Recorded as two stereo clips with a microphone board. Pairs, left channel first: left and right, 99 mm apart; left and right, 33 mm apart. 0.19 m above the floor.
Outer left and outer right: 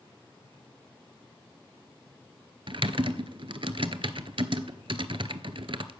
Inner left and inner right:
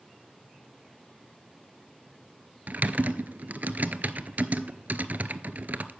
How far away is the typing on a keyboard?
About 0.5 m.